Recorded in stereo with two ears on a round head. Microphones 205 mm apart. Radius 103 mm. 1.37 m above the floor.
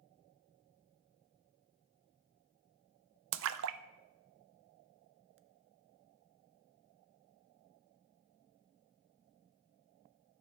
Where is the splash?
60° right (ahead or behind), 0.5 m.